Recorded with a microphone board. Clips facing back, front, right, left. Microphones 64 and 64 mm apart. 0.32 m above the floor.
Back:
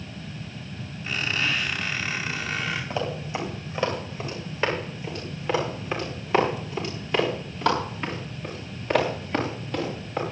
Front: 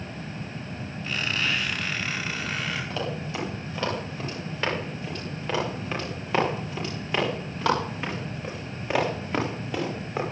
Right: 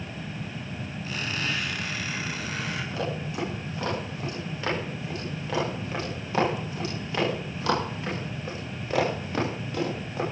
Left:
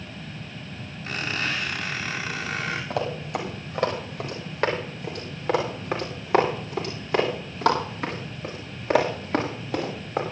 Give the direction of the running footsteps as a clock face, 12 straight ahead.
9 o'clock.